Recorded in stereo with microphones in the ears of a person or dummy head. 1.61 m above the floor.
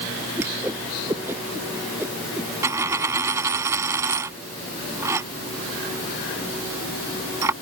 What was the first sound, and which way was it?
A whoosh, 15° right (ahead or behind).